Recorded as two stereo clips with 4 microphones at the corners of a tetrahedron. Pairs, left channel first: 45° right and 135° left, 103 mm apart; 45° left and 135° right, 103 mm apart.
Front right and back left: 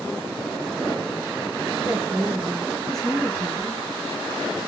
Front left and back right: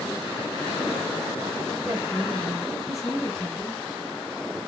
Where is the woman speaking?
175° left, 1.4 m; by 3.8 s 15° right, 1.4 m.